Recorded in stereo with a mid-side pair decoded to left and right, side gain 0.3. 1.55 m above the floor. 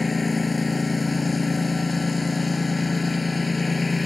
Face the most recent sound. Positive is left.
turn(degrees=35)